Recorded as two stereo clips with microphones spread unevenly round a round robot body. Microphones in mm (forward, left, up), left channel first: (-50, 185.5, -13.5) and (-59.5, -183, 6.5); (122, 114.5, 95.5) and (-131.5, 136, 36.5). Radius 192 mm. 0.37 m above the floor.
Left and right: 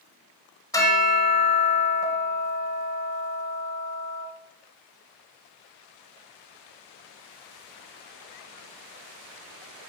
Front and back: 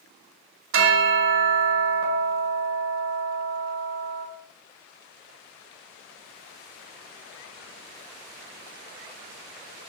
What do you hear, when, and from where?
0.7 s a bell: 165° left, 0.7 m